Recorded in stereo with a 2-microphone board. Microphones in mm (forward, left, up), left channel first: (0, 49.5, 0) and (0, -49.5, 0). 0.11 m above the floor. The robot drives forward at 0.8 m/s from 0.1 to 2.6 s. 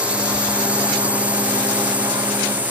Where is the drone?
10° right (ahead or behind); by 2.7 s 15° right (ahead or behind).